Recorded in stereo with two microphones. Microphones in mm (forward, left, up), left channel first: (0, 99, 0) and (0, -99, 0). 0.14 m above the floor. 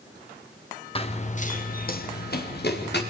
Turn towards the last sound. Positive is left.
turn(degrees=65)  # may be behind; listen again after turning